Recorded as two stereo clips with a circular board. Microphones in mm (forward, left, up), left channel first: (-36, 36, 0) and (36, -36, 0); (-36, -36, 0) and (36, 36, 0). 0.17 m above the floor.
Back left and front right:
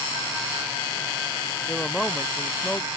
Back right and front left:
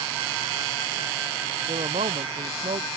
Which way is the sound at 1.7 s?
55° left.